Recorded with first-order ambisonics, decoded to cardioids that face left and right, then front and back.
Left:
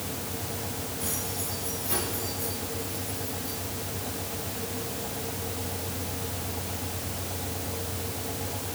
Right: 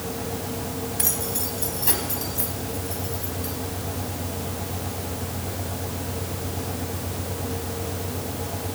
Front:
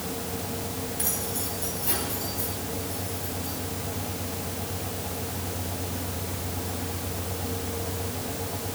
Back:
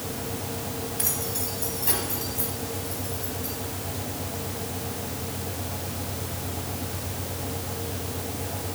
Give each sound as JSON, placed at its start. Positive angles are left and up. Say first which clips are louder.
{"t": 1.0, "sound": "keys jangling", "louder": "right 5 dB, back 1 dB", "azimuth_deg": -100, "distance_m": 3.0}